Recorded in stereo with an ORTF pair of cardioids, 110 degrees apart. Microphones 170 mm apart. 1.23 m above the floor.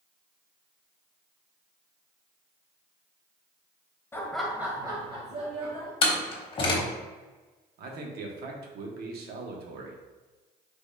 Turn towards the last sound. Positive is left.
turn(degrees=-65)